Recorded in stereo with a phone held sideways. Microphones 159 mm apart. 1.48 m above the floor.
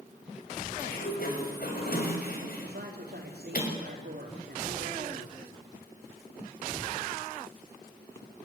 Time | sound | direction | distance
0.8 | a sliding door | 70° left (ahead or behind) | 6.5 m
2.6 | a man speaking | 85° right | 4 m